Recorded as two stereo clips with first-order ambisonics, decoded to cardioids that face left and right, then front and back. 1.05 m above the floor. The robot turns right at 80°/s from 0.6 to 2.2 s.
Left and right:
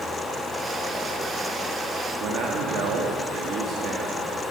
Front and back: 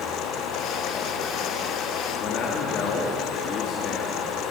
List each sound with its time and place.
2.2 s a man speaking: 45° right, 2.0 m